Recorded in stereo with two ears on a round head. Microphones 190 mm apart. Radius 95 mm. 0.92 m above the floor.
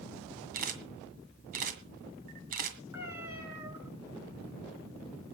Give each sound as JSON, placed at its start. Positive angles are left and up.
{"t": 0.5, "sound": "a camera shutter", "side_deg": -45, "distance_m": 2.0}
{"t": 2.9, "sound": "a cat meowing", "side_deg": -10, "distance_m": 5.5}